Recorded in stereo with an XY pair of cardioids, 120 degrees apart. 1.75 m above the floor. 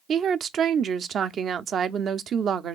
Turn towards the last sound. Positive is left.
turn(degrees=-50)